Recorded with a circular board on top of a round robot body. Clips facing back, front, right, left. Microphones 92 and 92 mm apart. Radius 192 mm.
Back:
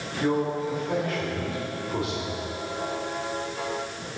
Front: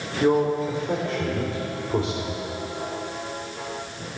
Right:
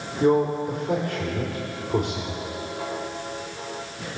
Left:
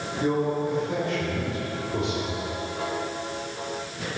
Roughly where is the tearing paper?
No tearing paper in this recording.